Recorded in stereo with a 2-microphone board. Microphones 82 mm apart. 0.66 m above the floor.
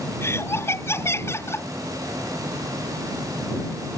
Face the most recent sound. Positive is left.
turn(degrees=30)  # may be behind; listen again after turning